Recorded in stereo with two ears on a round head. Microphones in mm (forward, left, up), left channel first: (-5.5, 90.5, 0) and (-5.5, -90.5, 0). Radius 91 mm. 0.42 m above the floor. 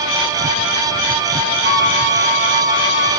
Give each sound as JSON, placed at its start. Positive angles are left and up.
{"t": 1.6, "sound": "a flute", "side_deg": 40, "distance_m": 3.0}